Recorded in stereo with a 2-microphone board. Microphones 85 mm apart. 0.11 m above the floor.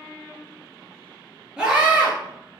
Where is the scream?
10° right (ahead or behind), 2 m.